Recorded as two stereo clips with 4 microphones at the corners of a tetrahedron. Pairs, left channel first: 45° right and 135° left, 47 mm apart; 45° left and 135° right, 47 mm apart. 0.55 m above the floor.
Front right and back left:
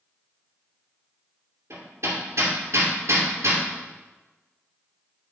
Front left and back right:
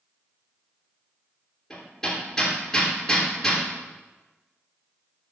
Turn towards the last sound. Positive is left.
turn(degrees=125)